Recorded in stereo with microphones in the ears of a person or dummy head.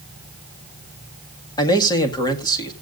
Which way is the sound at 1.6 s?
20° left (ahead or behind).